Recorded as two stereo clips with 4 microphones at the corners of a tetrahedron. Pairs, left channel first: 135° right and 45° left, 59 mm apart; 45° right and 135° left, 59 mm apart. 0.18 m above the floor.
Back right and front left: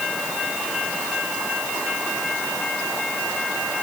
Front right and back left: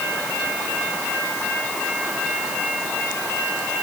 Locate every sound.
Only background noise.